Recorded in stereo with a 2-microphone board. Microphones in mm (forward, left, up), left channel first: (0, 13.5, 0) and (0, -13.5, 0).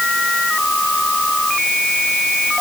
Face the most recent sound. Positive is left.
No sound to turn to.